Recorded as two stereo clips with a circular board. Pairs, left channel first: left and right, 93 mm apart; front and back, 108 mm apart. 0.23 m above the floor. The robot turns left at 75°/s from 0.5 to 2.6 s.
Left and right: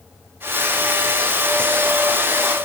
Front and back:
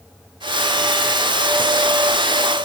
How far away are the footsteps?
I don't hear footsteps.